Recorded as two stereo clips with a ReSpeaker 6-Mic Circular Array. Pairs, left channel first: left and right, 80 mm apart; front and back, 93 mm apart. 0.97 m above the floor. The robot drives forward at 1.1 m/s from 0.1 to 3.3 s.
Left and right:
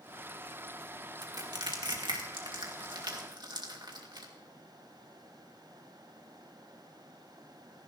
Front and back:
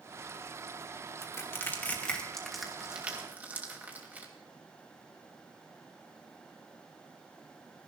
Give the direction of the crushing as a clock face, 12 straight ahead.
2 o'clock.